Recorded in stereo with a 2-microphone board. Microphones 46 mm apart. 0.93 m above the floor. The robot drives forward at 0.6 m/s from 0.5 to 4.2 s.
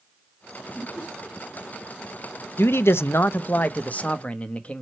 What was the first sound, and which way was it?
Laughter, 5° right (ahead or behind).